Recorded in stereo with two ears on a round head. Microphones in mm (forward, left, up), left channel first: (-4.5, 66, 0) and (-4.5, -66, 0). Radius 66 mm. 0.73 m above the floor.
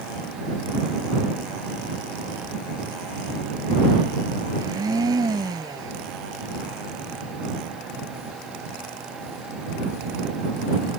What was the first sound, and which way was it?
A blender, 25° right (ahead or behind).